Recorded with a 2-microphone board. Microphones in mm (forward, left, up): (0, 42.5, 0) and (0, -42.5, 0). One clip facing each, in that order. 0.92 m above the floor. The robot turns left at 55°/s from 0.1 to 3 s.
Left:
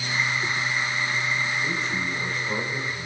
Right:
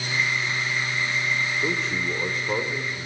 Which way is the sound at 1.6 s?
90° right.